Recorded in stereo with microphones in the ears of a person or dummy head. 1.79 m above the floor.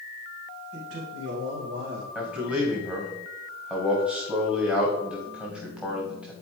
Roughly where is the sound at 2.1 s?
Centre.